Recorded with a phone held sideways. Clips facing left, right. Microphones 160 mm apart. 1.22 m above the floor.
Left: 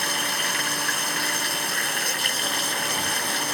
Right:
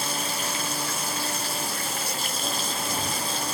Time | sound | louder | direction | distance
0.0 | running water | even | 70° left (ahead or behind) | ?